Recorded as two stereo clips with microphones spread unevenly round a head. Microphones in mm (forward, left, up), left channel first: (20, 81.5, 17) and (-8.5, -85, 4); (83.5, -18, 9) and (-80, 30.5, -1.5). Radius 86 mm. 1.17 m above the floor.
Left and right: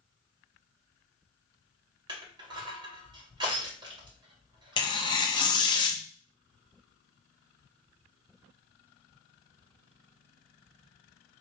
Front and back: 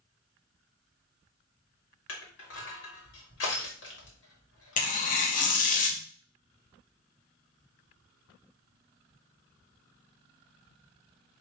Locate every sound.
2.1 s crushing: 35° right, 1.9 m
4.8 s tearing paper: 20° left, 0.8 m